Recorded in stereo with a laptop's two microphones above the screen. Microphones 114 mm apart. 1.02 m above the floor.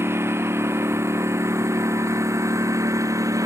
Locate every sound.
0.0 s a lawn mower: 20° right (ahead or behind); by 3.5 s 25° right (ahead or behind)